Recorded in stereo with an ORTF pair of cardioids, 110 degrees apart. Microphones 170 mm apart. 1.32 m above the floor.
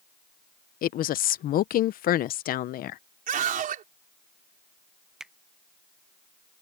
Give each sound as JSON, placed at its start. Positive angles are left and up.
{"t": 0.8, "sound": "a woman speaking", "azimuth_deg": 60}
{"t": 3.3, "sound": "a scream", "azimuth_deg": -55}
{"t": 5.2, "sound": "a finger snap", "azimuth_deg": -5}